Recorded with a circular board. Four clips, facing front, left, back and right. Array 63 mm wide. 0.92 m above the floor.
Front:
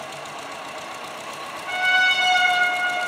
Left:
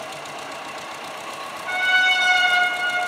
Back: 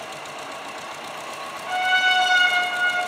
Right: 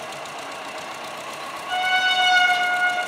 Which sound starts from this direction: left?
A trumpet, at 1.7 s.